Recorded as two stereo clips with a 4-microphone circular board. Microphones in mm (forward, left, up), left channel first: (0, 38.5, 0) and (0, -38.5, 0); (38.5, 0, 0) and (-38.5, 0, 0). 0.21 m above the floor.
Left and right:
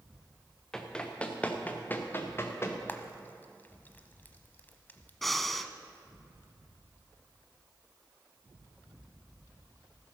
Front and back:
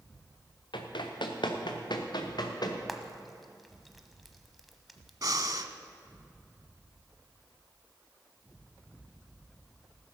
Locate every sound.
0.7 s running footsteps: 10° left, 2 m; by 2.8 s 35° left, 2.5 m
2.9 s frying: 95° left, 1.0 m
5.2 s breathing: straight behind, 0.6 m